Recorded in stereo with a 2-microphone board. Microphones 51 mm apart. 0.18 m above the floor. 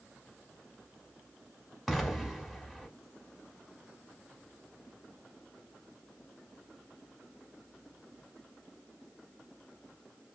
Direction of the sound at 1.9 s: Centre (ahead or behind).